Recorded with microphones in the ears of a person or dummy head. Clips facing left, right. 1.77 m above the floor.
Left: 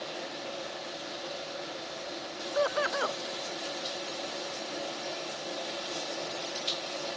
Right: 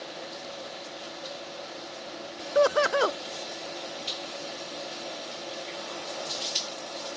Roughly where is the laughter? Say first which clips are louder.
Right 7 dB; right.